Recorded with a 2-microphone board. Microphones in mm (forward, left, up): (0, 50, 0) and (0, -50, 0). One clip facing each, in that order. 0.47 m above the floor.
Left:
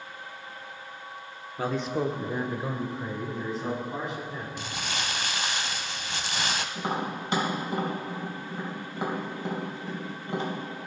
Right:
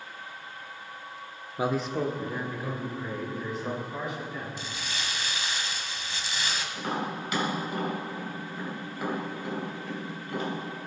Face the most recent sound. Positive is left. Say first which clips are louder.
# left 1 dB
turn(degrees=30)  # may be behind; listen again after turning